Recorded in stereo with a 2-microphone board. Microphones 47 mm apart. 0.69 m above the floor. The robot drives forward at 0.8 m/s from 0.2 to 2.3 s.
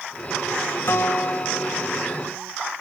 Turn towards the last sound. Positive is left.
turn(degrees=30)  # may be behind; listen again after turning